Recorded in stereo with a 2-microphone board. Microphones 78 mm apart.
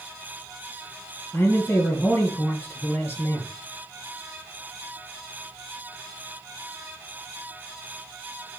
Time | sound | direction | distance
1.3 | a man speaking | 25° left (ahead or behind) | 3 m